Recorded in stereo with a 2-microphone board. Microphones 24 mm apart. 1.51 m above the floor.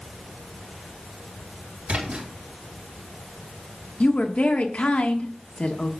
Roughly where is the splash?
Right.